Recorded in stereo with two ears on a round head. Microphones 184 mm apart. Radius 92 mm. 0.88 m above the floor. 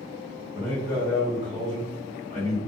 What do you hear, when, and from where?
0.5 s a man speaking: 25° right (ahead or behind), 1.2 m